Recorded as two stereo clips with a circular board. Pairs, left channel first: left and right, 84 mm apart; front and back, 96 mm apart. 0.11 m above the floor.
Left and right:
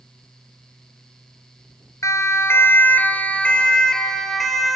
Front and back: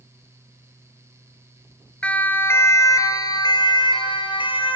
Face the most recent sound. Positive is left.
turn(degrees=0)